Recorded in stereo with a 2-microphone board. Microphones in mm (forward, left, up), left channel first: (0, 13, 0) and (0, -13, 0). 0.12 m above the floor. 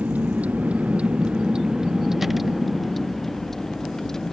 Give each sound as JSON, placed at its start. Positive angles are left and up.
{"t": 0.0, "sound": "a vehicle", "side_deg": -85}